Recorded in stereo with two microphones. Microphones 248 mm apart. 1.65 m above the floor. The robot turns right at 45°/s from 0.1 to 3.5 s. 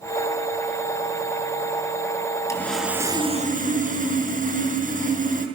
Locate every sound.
2.5 s sawing: 170° left, 5.5 m; by 5.5 s 145° right, 5.5 m